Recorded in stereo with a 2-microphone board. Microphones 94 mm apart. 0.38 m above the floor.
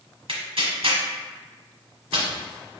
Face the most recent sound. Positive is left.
turn(degrees=-70)  # may be behind; listen again after turning